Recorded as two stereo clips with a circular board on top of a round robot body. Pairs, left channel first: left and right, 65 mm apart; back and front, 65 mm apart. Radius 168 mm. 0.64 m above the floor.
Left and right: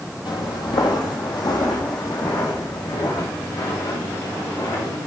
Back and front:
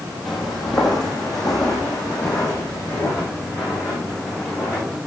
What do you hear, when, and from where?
0.2 s footsteps: 90° left, 1.4 m; by 5.0 s 100° left, 4.5 m